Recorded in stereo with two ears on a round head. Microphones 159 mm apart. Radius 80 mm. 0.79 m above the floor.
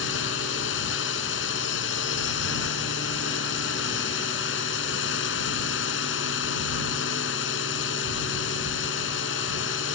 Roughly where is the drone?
Left.